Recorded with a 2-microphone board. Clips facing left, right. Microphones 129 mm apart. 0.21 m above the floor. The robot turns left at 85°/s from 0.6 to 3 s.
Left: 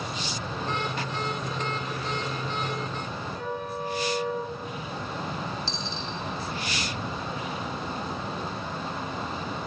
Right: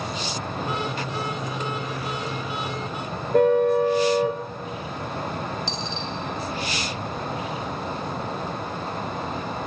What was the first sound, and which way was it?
A car horn, 60° right (ahead or behind).